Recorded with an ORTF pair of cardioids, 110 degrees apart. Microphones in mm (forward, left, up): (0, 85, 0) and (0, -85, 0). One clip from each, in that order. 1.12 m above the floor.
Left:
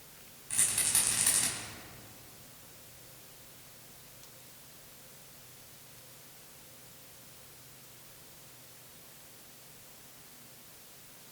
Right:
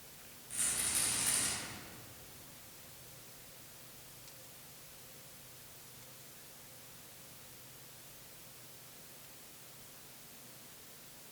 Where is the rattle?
60° left, 6 m.